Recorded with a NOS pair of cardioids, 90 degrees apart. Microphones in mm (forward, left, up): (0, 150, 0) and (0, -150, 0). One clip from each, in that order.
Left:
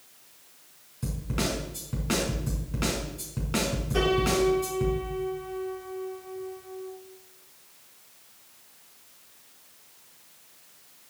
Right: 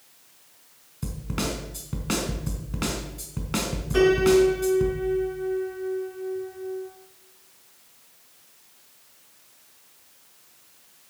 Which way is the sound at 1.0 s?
25° right.